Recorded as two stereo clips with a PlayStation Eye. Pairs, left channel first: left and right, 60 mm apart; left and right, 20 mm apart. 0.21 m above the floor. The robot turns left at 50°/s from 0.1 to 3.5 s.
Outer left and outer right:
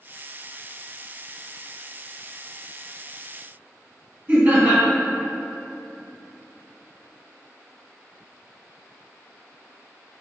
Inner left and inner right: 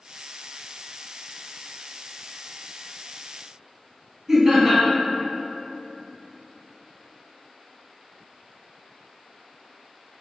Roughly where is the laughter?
Right.